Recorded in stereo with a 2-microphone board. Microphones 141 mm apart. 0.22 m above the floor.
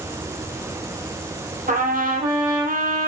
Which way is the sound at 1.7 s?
75° right (ahead or behind).